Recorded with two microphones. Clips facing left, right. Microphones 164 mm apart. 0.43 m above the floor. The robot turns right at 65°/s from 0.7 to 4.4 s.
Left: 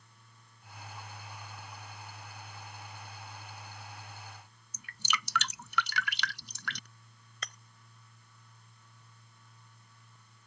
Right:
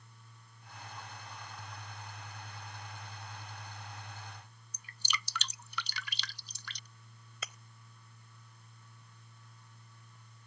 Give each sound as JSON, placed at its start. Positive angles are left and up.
{"t": 4.7, "sound": "dripping", "side_deg": 75}
{"t": 7.4, "sound": "breaking glass", "side_deg": -5}